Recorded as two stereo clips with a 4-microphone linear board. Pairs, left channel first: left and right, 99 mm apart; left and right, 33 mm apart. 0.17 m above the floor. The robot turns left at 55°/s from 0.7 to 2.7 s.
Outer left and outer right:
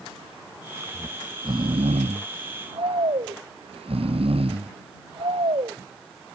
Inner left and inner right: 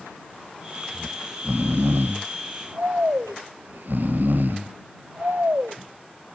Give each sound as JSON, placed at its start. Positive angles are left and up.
{"t": 0.9, "sound": "snoring", "azimuth_deg": -20}